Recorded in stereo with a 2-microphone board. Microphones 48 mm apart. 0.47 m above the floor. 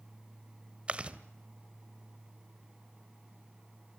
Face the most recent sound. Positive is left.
turn(degrees=-25)  # may be behind; listen again after turning